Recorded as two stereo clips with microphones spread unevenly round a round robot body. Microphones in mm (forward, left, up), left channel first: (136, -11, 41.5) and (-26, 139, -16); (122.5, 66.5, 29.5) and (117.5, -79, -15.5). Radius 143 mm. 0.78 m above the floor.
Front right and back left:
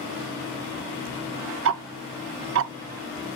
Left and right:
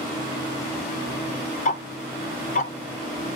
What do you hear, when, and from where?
1.6 s ticking: 100° left, 0.5 m